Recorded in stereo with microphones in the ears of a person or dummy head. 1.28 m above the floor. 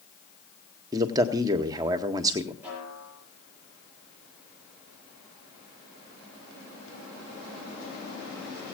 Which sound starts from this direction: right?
A man speaking, at 0.9 s.